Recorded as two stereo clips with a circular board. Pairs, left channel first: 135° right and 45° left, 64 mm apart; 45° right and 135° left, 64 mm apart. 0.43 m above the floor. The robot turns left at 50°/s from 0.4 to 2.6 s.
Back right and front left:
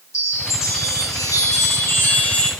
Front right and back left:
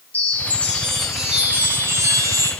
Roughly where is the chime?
Right.